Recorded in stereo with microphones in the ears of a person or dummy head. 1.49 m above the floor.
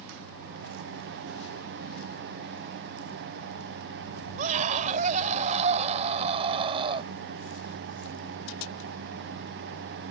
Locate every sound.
4.4 s a scream: 45° right (ahead or behind); by 7.1 s 30° right (ahead or behind)